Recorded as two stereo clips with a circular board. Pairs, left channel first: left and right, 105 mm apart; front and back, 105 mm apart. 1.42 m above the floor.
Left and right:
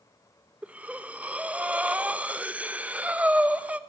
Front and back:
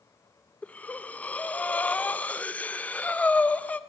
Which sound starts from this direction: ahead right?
Breathing, at 0.6 s.